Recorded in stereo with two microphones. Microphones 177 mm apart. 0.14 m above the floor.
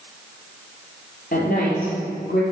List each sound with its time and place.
1.3 s a woman speaking: 55° left (ahead or behind), 4 m; by 2.4 s 60° left (ahead or behind), 4.5 m